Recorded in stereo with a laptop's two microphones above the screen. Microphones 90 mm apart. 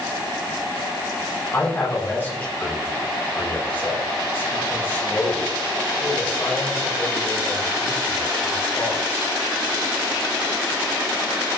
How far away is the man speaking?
About 6 m.